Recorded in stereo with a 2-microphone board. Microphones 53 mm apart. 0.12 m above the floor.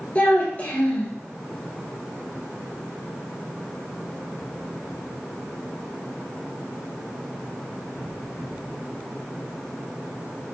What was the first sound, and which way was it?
A child speaking, 30° left (ahead or behind).